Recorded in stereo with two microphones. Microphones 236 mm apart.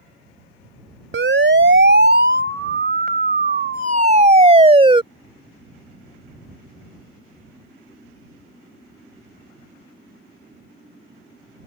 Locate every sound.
1.1 s a siren: 60° right (ahead or behind); by 5.0 s 20° right (ahead or behind)